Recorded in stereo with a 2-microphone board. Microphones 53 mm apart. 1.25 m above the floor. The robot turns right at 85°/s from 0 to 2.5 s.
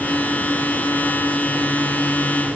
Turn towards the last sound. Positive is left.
No sound to turn to.